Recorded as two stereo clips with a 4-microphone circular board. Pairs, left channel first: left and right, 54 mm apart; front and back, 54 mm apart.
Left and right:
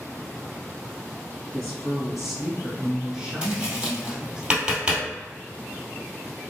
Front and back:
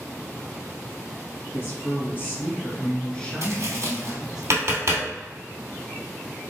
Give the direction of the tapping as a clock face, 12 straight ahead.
5 o'clock.